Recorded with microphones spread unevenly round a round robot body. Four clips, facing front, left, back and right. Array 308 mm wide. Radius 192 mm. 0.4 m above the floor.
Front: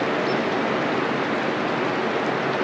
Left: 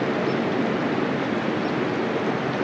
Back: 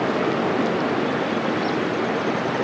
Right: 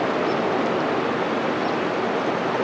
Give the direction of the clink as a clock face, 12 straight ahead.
I don't hear a clink.